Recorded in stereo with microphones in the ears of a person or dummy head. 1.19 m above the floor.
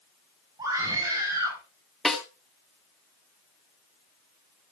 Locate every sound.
0.6 s a scream: 20° right (ahead or behind), 7.5 m
2.0 s a snare drum: centre (ahead or behind), 2.5 m